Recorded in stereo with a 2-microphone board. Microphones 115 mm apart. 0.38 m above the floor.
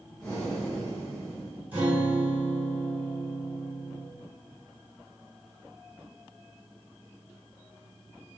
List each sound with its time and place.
0.2 s breathing: 5° left (ahead or behind), 1.2 m
1.7 s a guitar: 10° right (ahead or behind), 1.8 m